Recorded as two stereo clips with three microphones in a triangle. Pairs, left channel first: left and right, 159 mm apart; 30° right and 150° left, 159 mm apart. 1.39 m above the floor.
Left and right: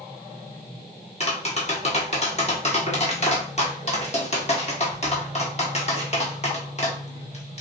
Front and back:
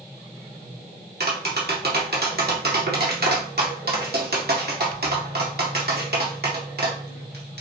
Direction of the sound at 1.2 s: 135° left.